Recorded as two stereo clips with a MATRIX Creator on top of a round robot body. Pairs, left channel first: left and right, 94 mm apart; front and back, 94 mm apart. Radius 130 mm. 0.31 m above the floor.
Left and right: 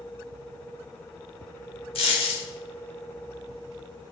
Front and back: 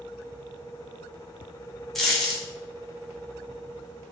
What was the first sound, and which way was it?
A dropped coin, 90° left.